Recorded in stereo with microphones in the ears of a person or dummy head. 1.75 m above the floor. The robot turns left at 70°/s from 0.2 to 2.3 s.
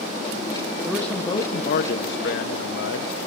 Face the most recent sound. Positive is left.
turn(degrees=85)